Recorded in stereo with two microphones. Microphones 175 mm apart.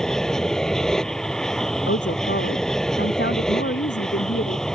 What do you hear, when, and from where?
0.0 s an aircraft: 5° left (ahead or behind)
1.9 s a woman speaking: 80° left